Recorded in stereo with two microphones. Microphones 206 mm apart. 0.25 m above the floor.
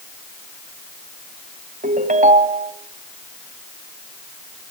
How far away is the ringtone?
About 1.2 m.